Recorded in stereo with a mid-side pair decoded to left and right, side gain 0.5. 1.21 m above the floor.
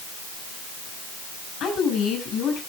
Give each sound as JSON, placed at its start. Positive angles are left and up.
{"t": 1.6, "sound": "a woman speaking", "azimuth_deg": 65, "distance_m": 8.5}